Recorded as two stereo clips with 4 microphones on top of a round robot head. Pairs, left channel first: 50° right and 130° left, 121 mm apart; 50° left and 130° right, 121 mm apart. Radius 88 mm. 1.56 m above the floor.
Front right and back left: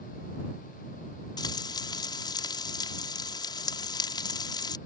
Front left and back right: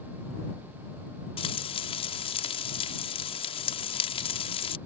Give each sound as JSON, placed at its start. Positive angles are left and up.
{"t": 1.4, "sound": "frying", "azimuth_deg": 5}